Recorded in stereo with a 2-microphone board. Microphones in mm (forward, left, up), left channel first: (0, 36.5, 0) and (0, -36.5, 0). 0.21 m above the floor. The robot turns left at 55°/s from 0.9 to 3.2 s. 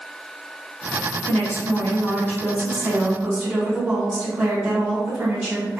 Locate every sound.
1.3 s a woman speaking: 25° left (ahead or behind), 1.4 m; by 5.8 s 5° right (ahead or behind), 1.4 m